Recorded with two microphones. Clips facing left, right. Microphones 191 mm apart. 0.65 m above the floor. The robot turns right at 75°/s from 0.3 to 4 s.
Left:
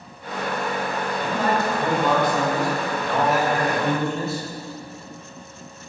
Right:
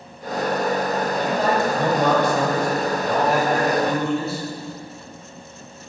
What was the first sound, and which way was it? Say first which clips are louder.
A man speaking: right 1 dB; 160° right.